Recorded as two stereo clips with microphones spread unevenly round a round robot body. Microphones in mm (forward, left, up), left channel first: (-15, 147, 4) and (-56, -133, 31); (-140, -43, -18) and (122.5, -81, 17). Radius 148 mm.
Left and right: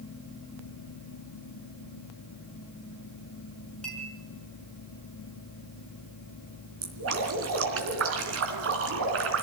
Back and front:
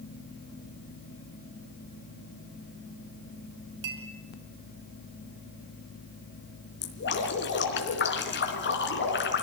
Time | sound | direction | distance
3.8 | a clink | 5° right | 4.5 m
6.8 | dripping | 140° right | 3.5 m